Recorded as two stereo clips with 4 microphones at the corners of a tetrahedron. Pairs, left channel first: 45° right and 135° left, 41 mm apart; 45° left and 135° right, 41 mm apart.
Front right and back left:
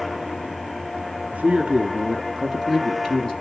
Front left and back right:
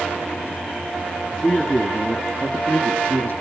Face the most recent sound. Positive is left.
turn(degrees=15)